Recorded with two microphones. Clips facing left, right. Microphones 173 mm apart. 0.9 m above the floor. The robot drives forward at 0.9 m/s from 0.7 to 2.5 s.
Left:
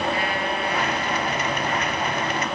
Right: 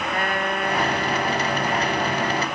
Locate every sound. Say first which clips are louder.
0.1 s a trumpet: even; 50° right (ahead or behind); by 2.5 s 55° right (ahead or behind)